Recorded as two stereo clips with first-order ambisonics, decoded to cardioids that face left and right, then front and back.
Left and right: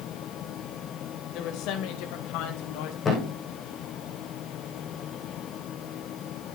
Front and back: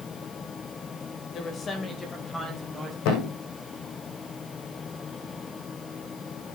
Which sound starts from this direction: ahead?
A thud, at 3.0 s.